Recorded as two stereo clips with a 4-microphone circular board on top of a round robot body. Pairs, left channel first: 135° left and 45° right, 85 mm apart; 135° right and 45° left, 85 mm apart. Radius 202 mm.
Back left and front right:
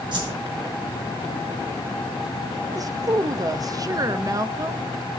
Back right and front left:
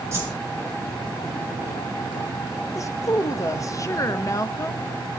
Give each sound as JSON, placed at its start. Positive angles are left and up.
{"t": 0.1, "sound": "a whoosh", "azimuth_deg": -15, "distance_m": 4.5}
{"t": 2.8, "sound": "a woman speaking", "azimuth_deg": -90, "distance_m": 1.3}